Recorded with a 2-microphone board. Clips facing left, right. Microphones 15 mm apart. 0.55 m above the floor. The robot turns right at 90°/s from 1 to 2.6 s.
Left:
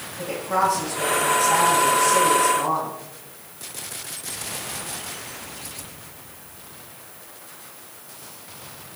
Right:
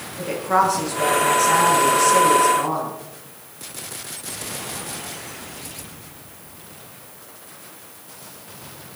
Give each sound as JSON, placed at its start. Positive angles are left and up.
{"t": 0.2, "sound": "a woman speaking", "azimuth_deg": -135, "distance_m": 8.5}